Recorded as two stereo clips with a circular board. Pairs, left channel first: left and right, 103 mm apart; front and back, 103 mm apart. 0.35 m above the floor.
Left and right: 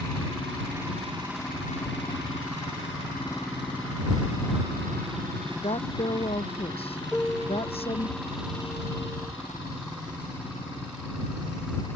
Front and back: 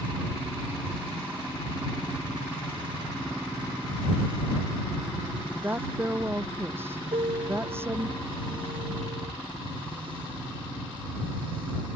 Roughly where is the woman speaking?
Left.